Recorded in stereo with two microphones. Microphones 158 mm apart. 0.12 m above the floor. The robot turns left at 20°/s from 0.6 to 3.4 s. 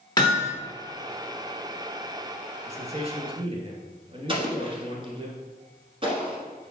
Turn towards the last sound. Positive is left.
turn(degrees=-35)  # may be behind; listen again after turning